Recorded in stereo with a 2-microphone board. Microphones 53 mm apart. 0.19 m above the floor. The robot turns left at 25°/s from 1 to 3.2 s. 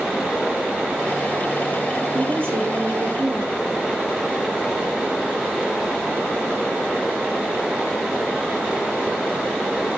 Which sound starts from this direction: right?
A woman speaking, at 2.1 s.